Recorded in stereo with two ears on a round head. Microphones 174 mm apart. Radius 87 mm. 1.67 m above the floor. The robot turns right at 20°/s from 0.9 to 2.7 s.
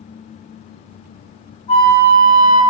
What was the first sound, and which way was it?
A flute, 25° left (ahead or behind).